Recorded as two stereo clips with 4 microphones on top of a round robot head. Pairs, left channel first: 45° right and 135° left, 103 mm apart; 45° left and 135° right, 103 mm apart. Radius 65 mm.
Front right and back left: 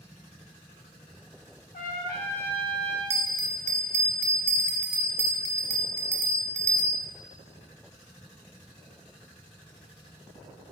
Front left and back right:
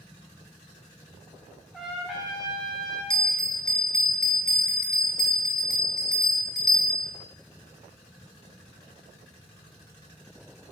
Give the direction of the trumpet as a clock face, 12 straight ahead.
1 o'clock.